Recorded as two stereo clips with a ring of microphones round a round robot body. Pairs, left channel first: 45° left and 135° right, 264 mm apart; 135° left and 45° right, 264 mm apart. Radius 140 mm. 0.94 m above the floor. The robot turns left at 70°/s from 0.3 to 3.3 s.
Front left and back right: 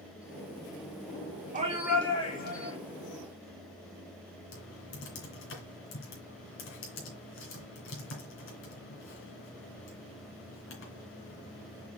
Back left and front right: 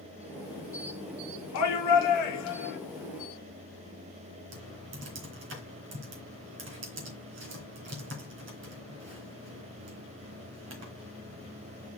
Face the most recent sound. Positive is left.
turn(degrees=0)